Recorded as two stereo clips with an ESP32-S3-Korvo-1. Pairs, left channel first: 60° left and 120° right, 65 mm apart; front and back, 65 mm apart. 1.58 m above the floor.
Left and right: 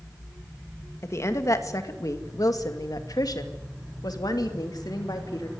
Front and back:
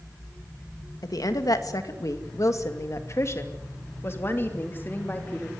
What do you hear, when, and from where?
1.0 s a woman speaking: 15° left, 2 m; by 5.5 s 60° left, 3.5 m